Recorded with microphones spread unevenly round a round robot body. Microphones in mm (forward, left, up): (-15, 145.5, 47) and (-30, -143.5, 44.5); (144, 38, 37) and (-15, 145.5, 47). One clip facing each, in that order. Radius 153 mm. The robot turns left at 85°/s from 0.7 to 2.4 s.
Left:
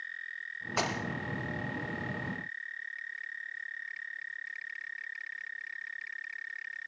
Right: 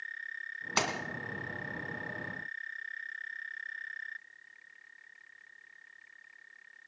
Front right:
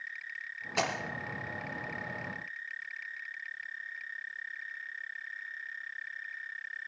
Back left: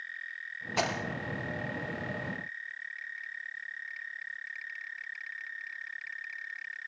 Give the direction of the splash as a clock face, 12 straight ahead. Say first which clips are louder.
Left 1 dB, back left 1 dB; 4 o'clock.